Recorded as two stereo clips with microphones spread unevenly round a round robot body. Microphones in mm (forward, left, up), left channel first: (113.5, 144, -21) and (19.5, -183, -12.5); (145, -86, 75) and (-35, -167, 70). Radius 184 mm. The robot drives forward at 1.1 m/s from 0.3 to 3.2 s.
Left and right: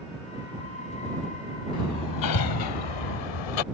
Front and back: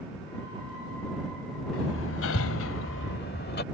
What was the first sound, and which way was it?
Hammering, 30° left.